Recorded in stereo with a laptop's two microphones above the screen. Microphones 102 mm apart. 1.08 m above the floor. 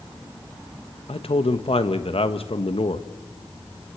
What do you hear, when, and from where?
1.1 s a man speaking: 70° left (ahead or behind), 1.2 m